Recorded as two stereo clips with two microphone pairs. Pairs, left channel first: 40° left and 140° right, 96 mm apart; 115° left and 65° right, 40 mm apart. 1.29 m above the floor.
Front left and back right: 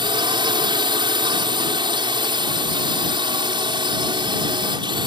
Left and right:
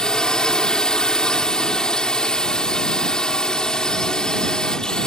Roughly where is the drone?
Behind.